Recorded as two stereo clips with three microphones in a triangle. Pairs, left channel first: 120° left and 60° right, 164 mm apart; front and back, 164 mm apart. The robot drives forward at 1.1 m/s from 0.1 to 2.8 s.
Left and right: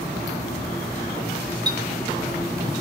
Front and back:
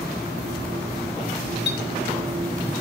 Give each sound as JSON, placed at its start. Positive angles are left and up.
{"t": 1.7, "sound": "a clink", "azimuth_deg": 5, "distance_m": 2.5}